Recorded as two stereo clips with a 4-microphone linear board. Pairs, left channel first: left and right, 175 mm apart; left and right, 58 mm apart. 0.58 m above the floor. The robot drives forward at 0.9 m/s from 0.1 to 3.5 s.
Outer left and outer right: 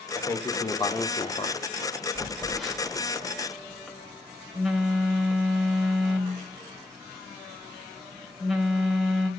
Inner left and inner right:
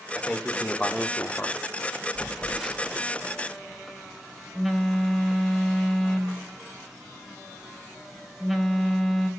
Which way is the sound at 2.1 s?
Centre (ahead or behind).